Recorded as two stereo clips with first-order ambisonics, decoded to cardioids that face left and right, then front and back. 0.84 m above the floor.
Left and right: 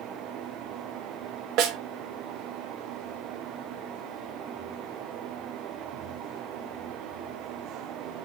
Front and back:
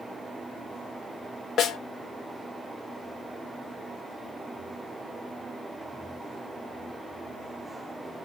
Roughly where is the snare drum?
Ahead right.